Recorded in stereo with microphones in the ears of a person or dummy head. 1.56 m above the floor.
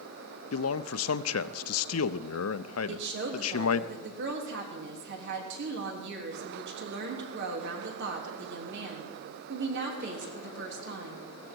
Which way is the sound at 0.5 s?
80° left.